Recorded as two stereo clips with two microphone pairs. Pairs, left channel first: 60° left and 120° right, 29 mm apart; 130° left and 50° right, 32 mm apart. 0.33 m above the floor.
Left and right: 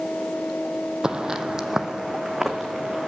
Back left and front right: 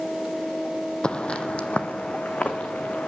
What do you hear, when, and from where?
1.0 s footsteps: 175° right, 0.7 m; by 3.1 s 165° left, 1.7 m